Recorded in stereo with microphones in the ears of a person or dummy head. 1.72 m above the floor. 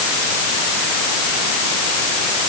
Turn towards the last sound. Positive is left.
No sound to turn to.